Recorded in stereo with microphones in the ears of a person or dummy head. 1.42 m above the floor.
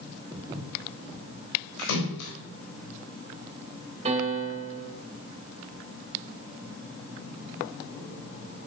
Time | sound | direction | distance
0.3 | footsteps | 15° right (ahead or behind) | 4 m
1.8 | a splash | 80° left | 4 m
4.0 | a piano | 30° right (ahead or behind) | 3 m